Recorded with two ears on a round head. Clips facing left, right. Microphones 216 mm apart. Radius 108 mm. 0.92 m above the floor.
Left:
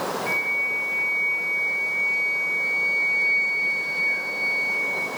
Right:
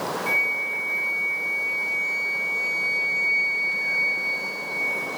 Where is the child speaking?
No child speaking in this recording.